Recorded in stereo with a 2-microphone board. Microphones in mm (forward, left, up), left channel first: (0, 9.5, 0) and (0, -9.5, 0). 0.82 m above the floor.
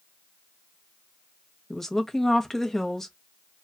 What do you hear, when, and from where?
1.7 s a woman speaking: 20° left (ahead or behind), 0.6 m